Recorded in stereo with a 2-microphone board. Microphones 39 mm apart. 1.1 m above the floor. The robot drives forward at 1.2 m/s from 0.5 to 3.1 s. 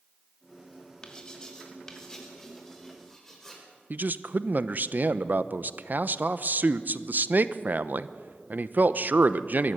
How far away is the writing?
About 2.5 m.